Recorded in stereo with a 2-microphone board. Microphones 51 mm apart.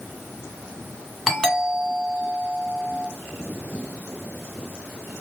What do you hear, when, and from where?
1.3 s a doorbell: 5° left (ahead or behind), 1.5 m